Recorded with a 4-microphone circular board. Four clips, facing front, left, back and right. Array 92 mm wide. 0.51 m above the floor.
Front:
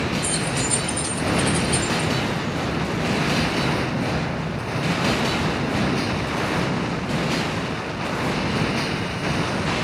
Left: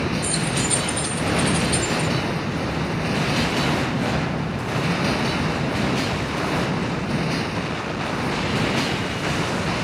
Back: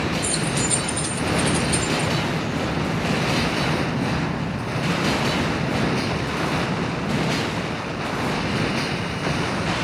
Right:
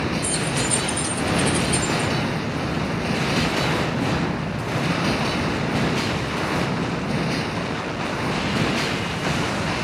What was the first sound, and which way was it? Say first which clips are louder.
Keys jangling: even, back 1 dB; 140° left.